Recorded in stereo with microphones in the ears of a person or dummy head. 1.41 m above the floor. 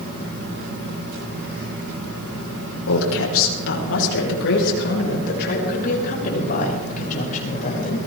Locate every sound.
2.9 s a woman speaking: 80° left, 5.5 m; by 8.0 s 40° left (ahead or behind), 8.5 m